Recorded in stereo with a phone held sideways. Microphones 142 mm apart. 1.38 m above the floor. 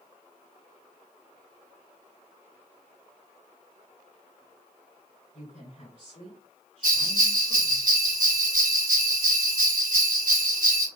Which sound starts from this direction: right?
A bell, at 6.8 s.